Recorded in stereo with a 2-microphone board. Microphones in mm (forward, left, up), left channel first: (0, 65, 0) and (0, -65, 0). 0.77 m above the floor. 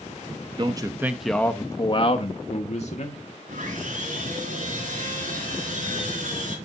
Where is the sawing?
85° right, 3.5 m.